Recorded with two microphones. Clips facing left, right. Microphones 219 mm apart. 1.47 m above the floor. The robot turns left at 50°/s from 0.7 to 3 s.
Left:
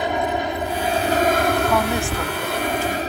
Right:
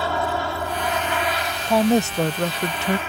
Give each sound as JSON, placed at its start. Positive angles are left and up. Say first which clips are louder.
{"t": 0.0, "sound": "an aircraft", "louder": "left 2 dB", "side_deg": 20}
{"t": 1.7, "sound": "a woman speaking", "louder": "right 3 dB", "azimuth_deg": -25}